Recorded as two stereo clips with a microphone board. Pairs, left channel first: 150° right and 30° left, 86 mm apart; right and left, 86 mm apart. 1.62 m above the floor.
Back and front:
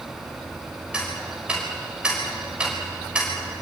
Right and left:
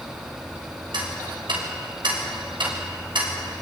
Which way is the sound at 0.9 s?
110° left.